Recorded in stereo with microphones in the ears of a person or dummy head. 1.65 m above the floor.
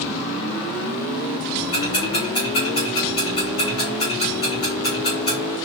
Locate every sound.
1.7 s ticking: 30° left (ahead or behind), 3 m